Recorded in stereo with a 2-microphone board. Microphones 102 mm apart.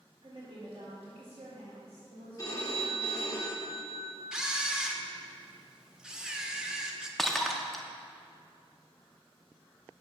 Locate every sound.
0.2 s a woman speaking: 65° right (ahead or behind), 1.7 m
2.4 s a phone ringing: 35° left (ahead or behind), 1.5 m
4.3 s a camera shutter: 10° right (ahead or behind), 0.6 m
7.2 s breaking glass: 5° left (ahead or behind), 0.6 m